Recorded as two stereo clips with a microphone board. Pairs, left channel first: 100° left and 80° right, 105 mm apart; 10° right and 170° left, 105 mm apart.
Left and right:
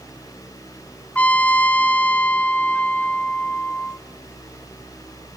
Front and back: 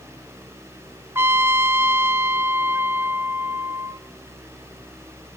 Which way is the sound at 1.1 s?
150° left.